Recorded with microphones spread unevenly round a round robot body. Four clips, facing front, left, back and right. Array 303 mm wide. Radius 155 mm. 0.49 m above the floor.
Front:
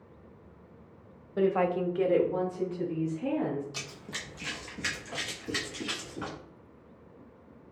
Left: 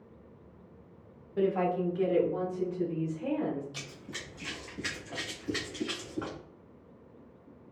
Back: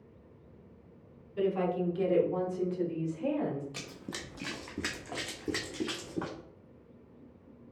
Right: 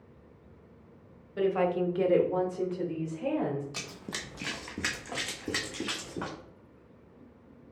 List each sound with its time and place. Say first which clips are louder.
1.4 s a woman speaking: right 1 dB, front 4 dB; straight ahead, 1.1 m; by 3.6 s 110° right, 2.5 m
3.7 s running footsteps: right 3 dB, even; 135° right, 0.5 m; by 6.4 s 125° right, 2 m